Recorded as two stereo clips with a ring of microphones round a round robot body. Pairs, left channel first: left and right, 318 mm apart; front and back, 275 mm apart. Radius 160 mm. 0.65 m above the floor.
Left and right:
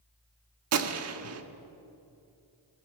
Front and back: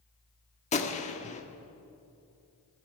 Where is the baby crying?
I don't hear a baby crying.